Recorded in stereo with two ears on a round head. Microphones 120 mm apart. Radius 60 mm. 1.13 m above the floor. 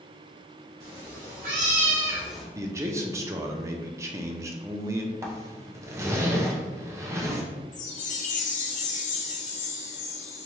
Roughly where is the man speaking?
Right.